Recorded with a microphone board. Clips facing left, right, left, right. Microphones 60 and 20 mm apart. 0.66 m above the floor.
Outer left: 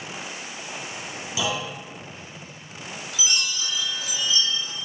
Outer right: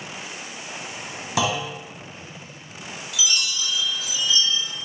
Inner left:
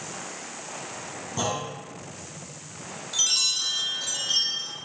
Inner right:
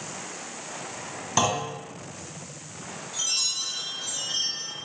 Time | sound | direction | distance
1.4 | a clunk | 70° right (ahead or behind) | 1.0 m
3.1 | a chime | 35° left (ahead or behind) | 0.7 m